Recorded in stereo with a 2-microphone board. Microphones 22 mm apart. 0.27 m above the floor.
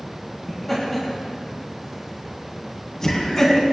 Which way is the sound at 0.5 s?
5° left (ahead or behind).